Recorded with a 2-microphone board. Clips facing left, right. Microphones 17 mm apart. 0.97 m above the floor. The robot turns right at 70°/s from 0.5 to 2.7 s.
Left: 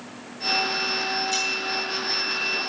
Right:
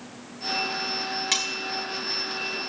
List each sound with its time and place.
1.3 s cutlery clinking: 80° right, 2 m; by 1.5 s 70° right (ahead or behind), 2 m